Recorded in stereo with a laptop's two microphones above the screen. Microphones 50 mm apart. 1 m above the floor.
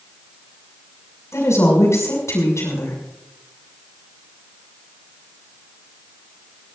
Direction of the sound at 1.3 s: 80° left.